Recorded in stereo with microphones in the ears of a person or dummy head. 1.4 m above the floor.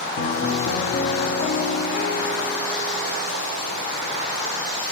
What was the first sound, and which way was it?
A piano, 50° left (ahead or behind).